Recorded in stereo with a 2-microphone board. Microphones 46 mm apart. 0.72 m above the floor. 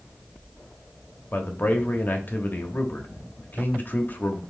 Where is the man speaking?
45° left (ahead or behind), 0.9 m.